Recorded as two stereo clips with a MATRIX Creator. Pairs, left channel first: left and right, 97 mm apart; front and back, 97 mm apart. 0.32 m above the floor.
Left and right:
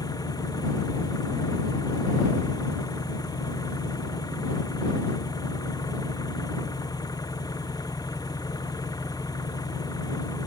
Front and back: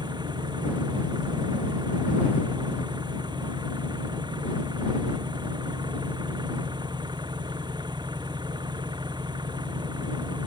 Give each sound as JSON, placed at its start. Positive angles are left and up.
{"t": 0.0, "sound": "an engine running", "azimuth_deg": 140}